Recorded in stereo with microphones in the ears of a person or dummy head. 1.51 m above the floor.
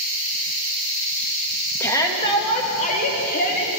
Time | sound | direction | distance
1.8 | a shout | 10° left (ahead or behind) | 2.5 m